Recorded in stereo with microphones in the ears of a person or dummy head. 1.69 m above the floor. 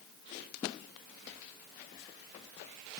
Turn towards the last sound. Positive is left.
No sound to turn to.